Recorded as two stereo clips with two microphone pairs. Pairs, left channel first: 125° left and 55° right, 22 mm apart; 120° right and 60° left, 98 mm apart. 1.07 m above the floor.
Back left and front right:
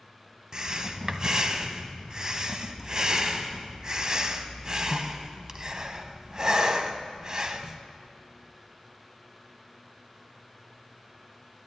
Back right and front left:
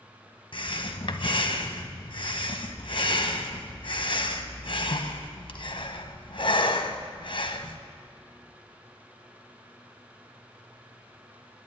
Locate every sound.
0.5 s breathing: 110° right, 0.8 m